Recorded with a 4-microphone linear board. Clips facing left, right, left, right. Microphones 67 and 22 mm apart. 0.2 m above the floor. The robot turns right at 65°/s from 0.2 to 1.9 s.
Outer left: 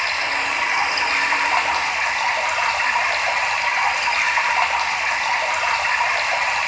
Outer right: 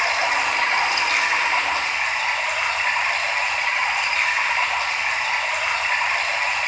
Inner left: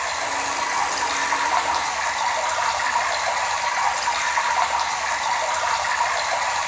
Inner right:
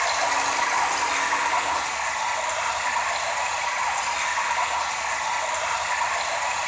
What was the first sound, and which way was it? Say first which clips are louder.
Running water: outer right 2 dB, inner right 2 dB; 20° right.